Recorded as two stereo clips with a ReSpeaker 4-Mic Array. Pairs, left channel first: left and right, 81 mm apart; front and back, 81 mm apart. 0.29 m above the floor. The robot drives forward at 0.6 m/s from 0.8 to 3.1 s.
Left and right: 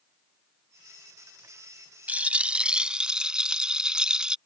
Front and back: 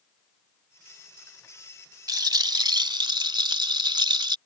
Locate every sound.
2.1 s a rattle: 160° right; by 4.4 s 170° right